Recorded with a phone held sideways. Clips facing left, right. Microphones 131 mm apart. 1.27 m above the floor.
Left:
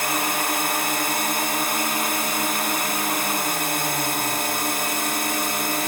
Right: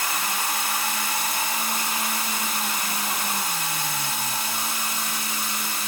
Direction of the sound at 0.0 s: 60° left (ahead or behind).